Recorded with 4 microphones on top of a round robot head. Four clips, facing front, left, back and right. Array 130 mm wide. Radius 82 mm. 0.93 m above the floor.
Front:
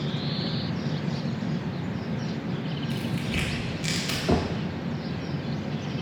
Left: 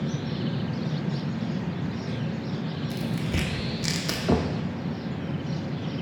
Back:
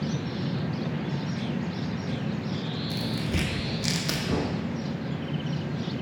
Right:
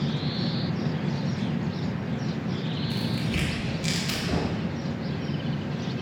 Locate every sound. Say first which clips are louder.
2.9 s tearing paper: even, back 1 dB; 130° left, 0.6 m
4.3 s knocking: left 5 dB, front 4 dB; 55° left, 0.6 m